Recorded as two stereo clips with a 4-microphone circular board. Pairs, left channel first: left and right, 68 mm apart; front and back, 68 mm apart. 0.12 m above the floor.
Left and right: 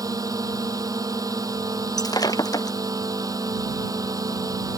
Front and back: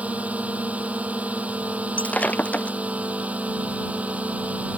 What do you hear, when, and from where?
0.0 s a drone: 110° right
2.0 s breaking glass: 70° left